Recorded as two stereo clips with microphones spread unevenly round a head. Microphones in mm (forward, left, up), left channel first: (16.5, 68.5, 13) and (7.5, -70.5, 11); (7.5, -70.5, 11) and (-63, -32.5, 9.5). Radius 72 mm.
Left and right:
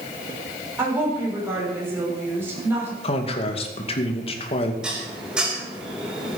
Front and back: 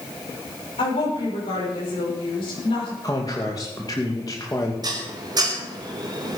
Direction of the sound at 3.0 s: 40° left.